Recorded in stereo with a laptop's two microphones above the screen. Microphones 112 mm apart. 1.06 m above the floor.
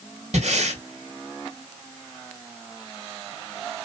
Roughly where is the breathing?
Right.